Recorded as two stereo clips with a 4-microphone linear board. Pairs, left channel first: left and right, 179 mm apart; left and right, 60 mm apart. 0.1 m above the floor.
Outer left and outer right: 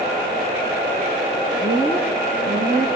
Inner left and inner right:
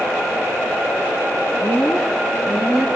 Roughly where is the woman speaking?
Centre.